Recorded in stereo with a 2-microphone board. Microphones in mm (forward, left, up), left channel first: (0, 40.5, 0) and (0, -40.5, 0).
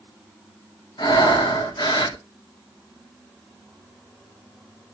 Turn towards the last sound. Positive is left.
turn(degrees=65)  # may be behind; listen again after turning